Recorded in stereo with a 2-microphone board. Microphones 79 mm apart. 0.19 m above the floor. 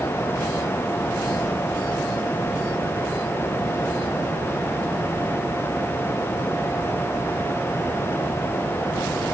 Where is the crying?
No crying in this recording.